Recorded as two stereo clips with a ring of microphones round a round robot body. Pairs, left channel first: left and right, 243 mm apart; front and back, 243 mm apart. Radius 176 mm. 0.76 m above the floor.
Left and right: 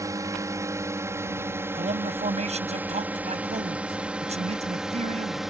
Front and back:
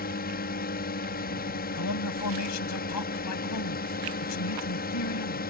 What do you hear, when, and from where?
0.0 s a drone: 20° right; by 5.5 s straight ahead
1.8 s a man speaking: 25° right